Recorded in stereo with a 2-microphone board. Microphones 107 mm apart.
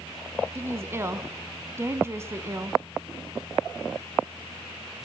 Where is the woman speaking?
25° right (ahead or behind), 1.1 m.